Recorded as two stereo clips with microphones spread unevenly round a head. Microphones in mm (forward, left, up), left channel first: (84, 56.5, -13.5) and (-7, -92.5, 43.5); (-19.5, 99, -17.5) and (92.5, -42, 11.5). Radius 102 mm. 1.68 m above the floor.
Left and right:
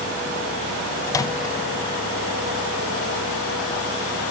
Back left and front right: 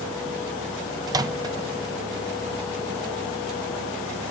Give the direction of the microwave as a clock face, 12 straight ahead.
1 o'clock.